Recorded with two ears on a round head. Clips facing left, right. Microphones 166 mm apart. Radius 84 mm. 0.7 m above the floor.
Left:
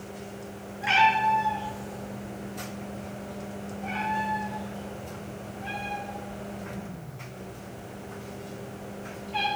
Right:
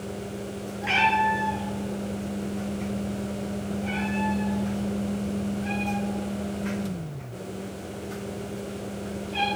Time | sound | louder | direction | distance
0.8 | a cat meowing | left 1 dB | 5° left (ahead or behind) | 2.5 m